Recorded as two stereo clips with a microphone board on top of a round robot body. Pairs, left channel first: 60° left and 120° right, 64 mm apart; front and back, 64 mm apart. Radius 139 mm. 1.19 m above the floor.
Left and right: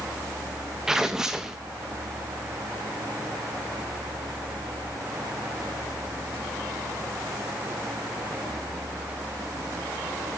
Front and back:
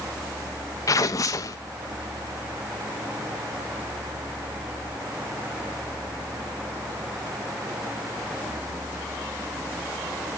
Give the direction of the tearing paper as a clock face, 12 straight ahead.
1 o'clock.